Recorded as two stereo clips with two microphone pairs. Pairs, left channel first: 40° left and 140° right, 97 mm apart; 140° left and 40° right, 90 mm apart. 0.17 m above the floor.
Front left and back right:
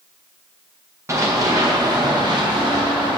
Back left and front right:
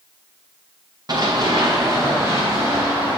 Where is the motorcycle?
I don't hear a motorcycle.